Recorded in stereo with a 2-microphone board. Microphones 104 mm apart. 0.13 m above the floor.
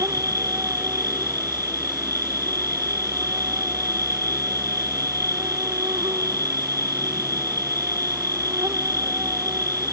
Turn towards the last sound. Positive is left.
turn(degrees=-30)  # may be behind; listen again after turning